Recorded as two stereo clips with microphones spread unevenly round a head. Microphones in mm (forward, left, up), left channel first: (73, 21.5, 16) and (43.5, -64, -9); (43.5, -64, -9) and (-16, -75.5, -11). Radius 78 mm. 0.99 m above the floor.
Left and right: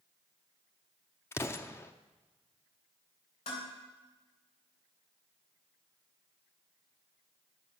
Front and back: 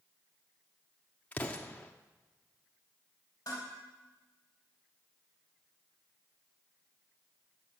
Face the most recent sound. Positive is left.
turn(degrees=70)